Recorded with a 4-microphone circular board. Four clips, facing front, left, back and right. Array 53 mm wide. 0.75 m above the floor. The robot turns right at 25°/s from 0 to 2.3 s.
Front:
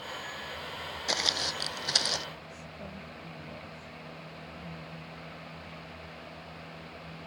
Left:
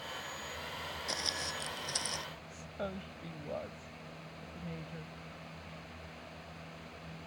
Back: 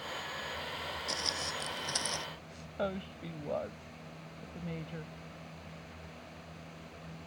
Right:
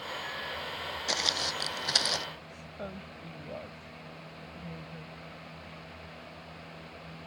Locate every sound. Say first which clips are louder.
1.1 s footsteps: right 8 dB, front 9 dB; 35° right; by 2.3 s 65° right
2.5 s a woman speaking: left 1 dB, back 7 dB; 170° left